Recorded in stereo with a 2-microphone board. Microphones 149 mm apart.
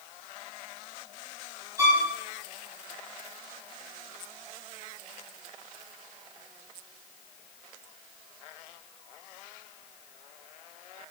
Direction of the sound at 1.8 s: 20° right (ahead or behind).